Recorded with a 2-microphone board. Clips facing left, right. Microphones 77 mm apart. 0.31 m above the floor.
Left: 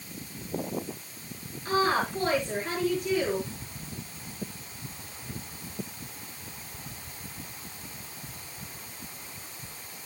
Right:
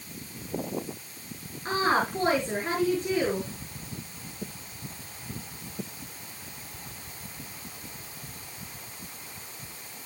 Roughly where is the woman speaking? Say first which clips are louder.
Even; right.